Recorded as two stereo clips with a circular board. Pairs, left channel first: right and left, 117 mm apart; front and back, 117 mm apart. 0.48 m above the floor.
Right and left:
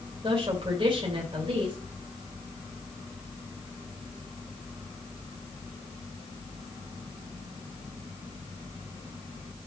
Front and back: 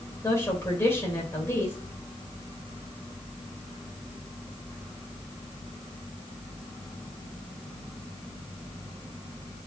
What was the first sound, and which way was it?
A woman speaking, 65° left.